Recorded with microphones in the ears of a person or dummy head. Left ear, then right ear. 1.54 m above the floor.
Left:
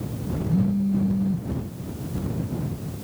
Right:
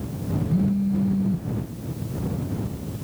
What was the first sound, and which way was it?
A phone buzzing, 5° right (ahead or behind).